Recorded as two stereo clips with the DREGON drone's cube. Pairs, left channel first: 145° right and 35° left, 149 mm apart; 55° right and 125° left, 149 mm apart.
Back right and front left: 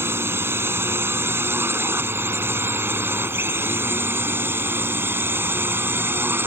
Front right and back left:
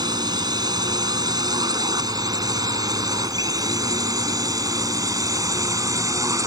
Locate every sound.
0.0 s a drone: 95° left; by 6.5 s 90° left